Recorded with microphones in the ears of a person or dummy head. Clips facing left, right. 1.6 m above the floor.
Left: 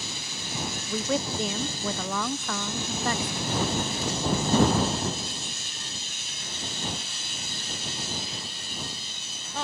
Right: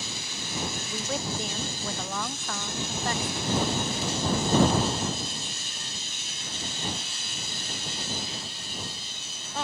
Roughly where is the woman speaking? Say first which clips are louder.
Left 8 dB; left.